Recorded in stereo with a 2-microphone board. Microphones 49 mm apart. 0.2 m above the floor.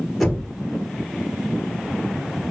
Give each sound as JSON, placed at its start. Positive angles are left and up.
{"t": 0.2, "sound": "knocking", "side_deg": -5, "distance_m": 2.5}